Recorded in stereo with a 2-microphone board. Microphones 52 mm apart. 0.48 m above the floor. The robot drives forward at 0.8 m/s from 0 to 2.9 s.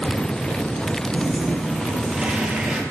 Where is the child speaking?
I don't hear a child speaking.